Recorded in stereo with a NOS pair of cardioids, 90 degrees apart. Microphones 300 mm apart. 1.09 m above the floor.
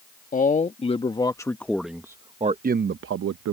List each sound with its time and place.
0.3 s a man speaking: 25° left; by 3.5 s 60° right